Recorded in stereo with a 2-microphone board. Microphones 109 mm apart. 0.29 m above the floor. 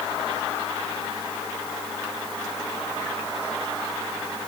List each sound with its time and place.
Only background noise.